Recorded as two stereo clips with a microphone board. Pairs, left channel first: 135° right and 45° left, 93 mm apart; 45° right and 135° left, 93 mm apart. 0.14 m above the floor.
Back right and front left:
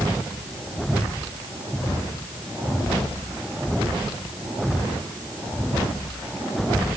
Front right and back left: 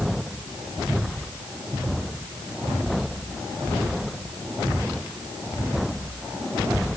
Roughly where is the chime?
I don't hear a chime.